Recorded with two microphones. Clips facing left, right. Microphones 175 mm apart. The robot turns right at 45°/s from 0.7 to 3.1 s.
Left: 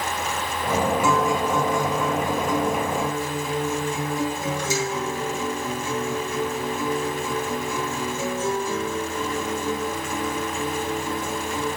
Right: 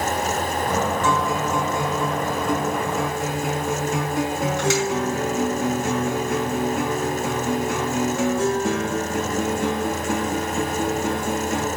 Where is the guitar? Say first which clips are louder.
Left 1 dB; 170° left, 4 m; by 11.7 s 95° right, 4 m.